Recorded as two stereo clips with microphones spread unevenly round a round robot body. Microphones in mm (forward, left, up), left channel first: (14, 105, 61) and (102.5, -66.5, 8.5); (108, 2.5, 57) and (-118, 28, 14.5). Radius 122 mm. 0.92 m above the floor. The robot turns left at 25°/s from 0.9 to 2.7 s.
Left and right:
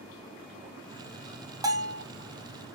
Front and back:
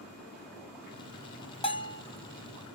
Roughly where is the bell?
Right.